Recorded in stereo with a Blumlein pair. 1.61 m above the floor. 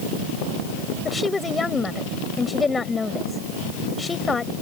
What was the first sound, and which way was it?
A woman speaking, 10° left.